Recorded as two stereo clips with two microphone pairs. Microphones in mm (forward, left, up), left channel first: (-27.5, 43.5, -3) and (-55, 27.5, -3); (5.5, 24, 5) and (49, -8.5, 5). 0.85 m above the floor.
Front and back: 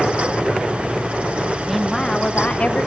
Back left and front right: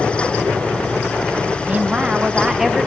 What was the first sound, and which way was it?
A woman speaking, 75° right.